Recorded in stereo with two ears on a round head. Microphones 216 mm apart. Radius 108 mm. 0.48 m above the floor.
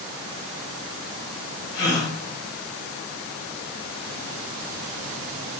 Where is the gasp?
70° left (ahead or behind), 1.4 m.